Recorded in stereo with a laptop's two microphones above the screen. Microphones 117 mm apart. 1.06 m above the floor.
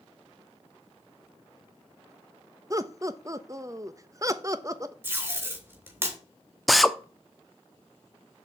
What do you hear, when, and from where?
2.7 s laughter: 30° right (ahead or behind), 1.0 m
5.0 s tape being pulled: 15° right (ahead or behind), 2.5 m
6.7 s a drill: centre (ahead or behind), 0.7 m